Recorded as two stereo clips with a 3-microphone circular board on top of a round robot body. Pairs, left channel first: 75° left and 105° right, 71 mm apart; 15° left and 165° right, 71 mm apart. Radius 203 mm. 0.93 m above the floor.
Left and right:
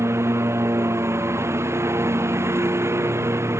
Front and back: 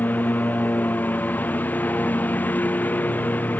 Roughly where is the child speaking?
I don't hear a child speaking.